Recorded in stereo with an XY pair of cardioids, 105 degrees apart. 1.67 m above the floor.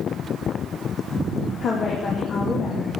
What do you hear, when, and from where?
1.6 s a woman speaking: 50° left, 2.5 m